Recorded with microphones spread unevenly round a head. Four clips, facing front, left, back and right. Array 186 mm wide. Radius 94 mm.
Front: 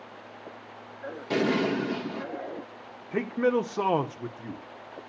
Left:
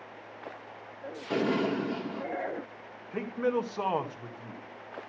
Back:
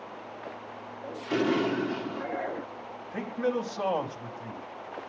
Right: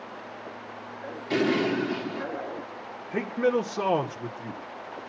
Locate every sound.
1.3 s an explosion: 25° left, 1.9 m
3.1 s a man speaking: 25° right, 1.2 m